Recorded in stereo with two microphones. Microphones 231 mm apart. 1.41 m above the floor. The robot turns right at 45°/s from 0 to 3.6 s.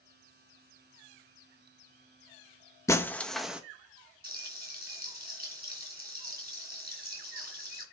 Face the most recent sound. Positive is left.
turn(degrees=-45)  # may be behind; listen again after turning